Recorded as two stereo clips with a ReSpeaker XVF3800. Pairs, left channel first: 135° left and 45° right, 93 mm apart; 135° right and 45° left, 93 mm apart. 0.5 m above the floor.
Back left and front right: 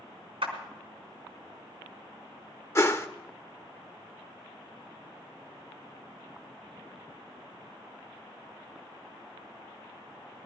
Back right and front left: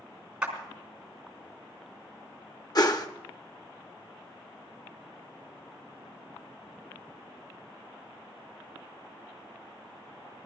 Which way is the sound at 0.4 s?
35° right.